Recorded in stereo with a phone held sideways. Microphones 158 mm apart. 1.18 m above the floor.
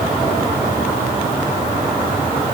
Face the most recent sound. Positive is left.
No sound to turn to.